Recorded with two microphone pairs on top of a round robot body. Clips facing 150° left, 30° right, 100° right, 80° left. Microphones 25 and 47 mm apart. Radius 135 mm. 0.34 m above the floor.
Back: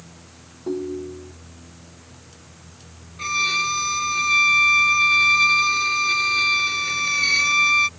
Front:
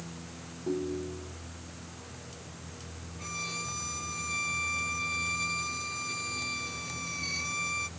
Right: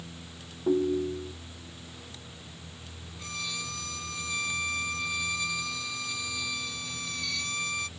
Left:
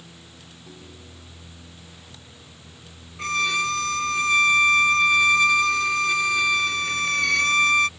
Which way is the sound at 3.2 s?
120° left.